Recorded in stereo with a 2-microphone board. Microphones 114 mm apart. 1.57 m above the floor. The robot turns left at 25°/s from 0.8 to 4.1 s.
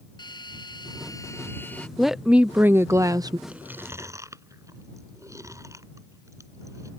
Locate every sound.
0.2 s a drill: 40° left (ahead or behind); by 1.9 s 10° left (ahead or behind)
2.0 s a woman speaking: straight ahead; by 3.4 s 35° right
3.5 s chewing: 10° right (ahead or behind); by 6.9 s 25° right (ahead or behind)